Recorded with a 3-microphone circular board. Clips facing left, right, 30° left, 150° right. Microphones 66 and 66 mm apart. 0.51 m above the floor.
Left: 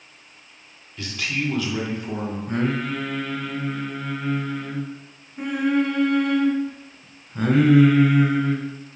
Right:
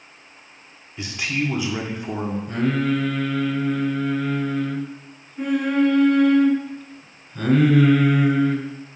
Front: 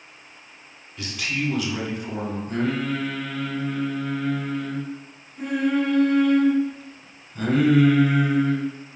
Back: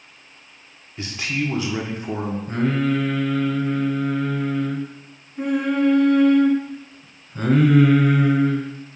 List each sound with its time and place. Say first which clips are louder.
1.0 s a man speaking: right 2 dB, back 2 dB; 135° right, 0.9 m
2.5 s singing: right 3 dB, back 4 dB; 160° left, 1.1 m